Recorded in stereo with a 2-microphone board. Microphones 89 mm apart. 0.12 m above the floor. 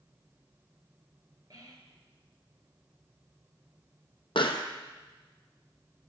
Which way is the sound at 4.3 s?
80° left.